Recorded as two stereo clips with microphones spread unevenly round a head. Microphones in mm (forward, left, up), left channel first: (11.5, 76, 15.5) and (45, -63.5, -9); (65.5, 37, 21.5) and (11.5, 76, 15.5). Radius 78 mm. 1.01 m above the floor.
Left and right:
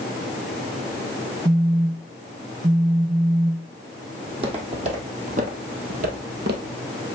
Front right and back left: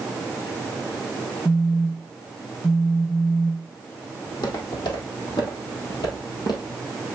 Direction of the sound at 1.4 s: 85° right.